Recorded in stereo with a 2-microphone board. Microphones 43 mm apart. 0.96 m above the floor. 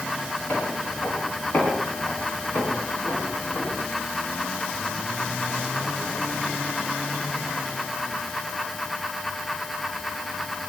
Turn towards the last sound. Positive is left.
turn(degrees=40)  # may be behind; listen again after turning